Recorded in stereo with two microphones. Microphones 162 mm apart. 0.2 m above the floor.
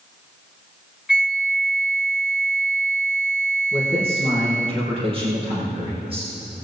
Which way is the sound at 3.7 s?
35° right (ahead or behind).